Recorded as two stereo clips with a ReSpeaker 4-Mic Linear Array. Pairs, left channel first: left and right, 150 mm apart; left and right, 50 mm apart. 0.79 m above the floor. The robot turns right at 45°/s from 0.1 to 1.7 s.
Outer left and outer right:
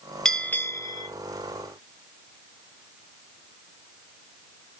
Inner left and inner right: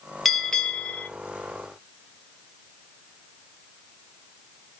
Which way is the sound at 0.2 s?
5° left.